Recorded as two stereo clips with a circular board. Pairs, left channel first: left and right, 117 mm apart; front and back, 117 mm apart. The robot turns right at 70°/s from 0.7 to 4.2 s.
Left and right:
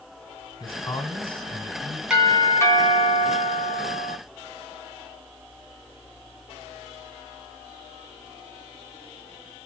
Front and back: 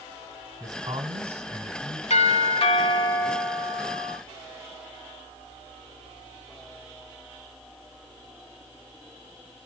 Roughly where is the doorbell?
Ahead.